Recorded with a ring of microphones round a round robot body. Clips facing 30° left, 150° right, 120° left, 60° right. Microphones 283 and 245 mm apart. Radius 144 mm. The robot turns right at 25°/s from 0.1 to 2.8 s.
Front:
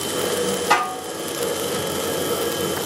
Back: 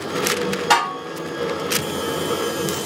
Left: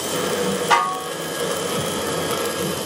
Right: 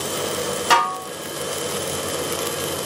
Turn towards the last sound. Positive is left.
turn(degrees=-50)